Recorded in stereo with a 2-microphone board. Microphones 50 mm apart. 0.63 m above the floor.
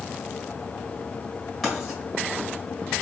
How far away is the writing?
About 1.8 m.